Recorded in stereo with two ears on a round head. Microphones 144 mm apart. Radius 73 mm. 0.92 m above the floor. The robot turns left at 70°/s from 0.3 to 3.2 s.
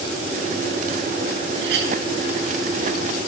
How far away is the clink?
About 4 m.